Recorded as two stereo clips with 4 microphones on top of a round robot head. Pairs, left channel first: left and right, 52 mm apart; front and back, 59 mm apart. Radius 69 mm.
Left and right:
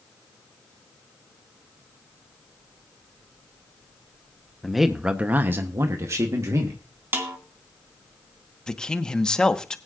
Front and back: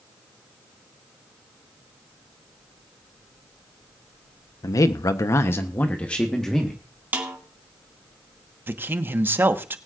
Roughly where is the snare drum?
Behind right.